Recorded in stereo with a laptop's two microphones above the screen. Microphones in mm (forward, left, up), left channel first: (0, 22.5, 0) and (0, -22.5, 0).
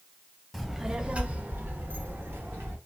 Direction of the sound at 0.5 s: Centre (ahead or behind).